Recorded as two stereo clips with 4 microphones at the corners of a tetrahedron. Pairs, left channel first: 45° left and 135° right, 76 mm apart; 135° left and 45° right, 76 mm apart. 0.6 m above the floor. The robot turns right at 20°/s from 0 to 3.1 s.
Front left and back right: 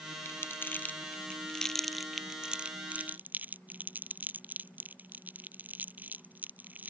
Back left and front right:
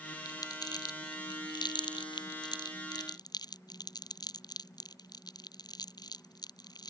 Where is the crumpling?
100° left; by 6.9 s 160° left.